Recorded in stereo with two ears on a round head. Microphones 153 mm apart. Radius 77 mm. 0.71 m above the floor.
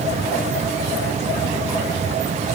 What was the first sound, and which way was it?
Only background noise.